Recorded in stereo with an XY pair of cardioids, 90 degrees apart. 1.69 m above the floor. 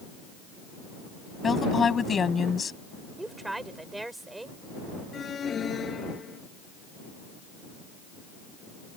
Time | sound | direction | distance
1.4 | a woman speaking | 45° left | ?
3.2 | a woman speaking | 15° right | ?
5.1 | an alarm | 50° left | ?